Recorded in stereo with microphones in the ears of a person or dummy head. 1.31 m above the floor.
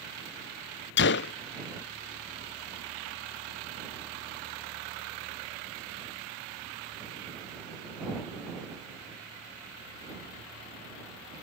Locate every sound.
1.0 s a gunshot: 55° left (ahead or behind)